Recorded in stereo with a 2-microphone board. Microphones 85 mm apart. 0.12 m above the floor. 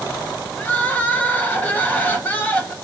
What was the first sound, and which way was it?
Crying, 20° left (ahead or behind).